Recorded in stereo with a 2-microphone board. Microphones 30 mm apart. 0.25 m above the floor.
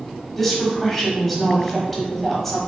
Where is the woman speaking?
10° left (ahead or behind), 1.1 m.